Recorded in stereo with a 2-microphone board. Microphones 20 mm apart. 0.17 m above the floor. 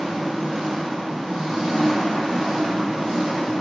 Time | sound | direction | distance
0.0 | an engine running | 70° right (ahead or behind) | 1.9 m